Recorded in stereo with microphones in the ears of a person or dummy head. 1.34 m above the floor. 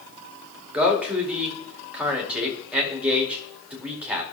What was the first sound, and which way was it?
A man speaking, 15° right (ahead or behind).